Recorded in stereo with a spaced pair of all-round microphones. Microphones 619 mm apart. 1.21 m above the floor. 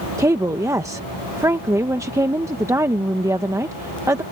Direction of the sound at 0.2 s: 5° right (ahead or behind).